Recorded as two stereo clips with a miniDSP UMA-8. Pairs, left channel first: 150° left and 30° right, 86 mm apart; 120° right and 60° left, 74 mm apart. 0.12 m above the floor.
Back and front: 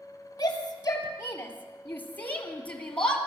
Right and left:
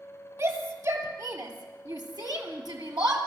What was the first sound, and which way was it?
A shout, 100° left.